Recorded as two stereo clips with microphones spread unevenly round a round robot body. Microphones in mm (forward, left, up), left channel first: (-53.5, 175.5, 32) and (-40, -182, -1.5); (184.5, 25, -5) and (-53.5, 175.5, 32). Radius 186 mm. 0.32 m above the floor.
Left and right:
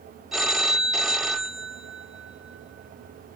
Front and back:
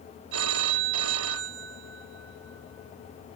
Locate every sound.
0.3 s a phone ringing: 175° right